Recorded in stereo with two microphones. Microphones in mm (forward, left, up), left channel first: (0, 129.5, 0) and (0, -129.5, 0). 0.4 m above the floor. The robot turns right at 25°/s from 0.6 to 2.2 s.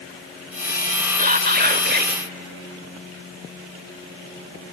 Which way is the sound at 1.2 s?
30° right (ahead or behind).